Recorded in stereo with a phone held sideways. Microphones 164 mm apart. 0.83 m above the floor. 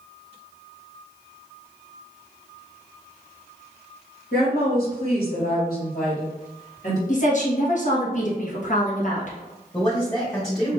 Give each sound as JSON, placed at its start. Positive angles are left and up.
{"t": 4.3, "sound": "a woman speaking", "side_deg": 60, "distance_m": 1.8}
{"t": 7.1, "sound": "a woman speaking", "side_deg": 50, "distance_m": 1.4}
{"t": 9.7, "sound": "a man speaking", "side_deg": 20, "distance_m": 1.3}